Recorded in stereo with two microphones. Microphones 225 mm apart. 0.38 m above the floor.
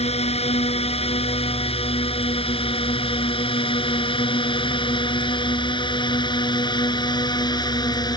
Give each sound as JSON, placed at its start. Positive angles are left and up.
{"t": 0.0, "sound": "a drone", "side_deg": 25}